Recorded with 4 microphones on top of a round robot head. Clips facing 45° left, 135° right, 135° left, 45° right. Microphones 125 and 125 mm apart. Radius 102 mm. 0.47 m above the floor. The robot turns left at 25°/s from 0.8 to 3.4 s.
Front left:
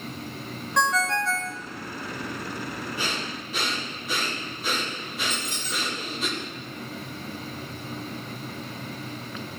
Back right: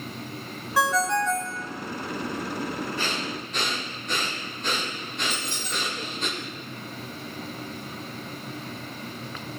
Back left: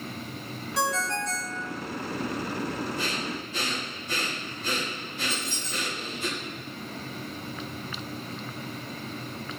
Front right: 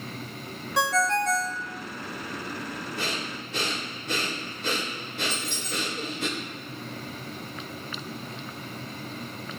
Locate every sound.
0.8 s a ringtone: 55° right, 0.7 m; by 1.6 s 75° right, 0.7 m
3.0 s breathing: 30° right, 2.0 m; by 6.3 s 40° right, 2.0 m
5.3 s a squeak: 80° right, 1.6 m